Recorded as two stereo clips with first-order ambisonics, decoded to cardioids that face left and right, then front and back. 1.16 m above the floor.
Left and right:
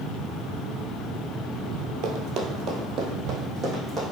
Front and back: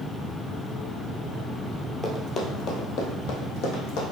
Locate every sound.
2.0 s running footsteps: 65° right, 1.6 m; by 4.0 s 20° right, 3 m